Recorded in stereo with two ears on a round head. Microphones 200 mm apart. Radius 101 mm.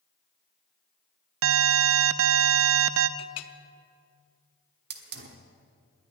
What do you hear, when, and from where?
1.4 s an alarm: 70° right (ahead or behind), 0.5 m
3.2 s a clink: 70° left (ahead or behind), 0.8 m
4.9 s a hiss: 45° right (ahead or behind), 1.3 m